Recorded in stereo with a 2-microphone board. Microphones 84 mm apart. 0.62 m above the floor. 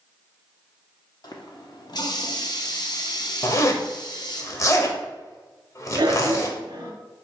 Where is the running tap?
55° left (ahead or behind), 0.7 m.